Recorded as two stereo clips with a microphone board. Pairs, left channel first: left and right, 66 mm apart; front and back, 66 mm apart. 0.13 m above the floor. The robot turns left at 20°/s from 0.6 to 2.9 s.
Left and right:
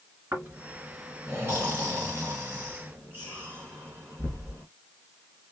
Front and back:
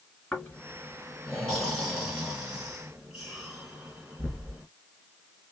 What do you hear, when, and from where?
0.3 s snoring: 65° right, 2 m; by 4.7 s 110° right, 2 m